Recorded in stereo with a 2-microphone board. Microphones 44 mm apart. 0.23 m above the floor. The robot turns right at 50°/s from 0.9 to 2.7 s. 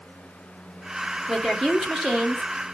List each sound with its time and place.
1.3 s a woman speaking: 5° right (ahead or behind), 1.4 m; by 2.5 s 20° right (ahead or behind), 1.4 m